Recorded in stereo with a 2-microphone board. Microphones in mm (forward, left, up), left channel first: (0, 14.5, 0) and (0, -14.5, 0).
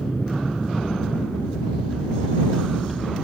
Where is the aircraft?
70° left (ahead or behind).